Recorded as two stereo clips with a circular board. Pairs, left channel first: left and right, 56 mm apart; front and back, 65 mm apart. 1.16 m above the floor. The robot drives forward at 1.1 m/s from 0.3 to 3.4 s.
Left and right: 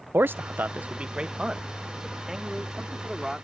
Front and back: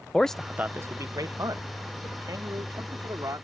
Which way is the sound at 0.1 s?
75° right.